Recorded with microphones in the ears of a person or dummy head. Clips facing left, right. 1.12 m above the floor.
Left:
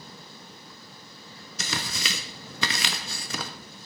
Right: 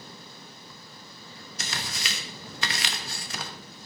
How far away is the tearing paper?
About 1.0 m.